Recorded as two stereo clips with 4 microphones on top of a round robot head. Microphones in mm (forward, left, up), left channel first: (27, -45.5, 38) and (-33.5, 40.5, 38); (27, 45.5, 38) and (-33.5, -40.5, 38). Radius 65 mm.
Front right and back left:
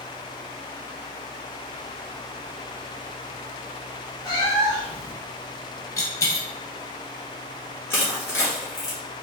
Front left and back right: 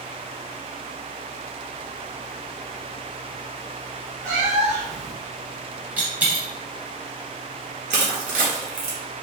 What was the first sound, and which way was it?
A cat meowing, 105° right.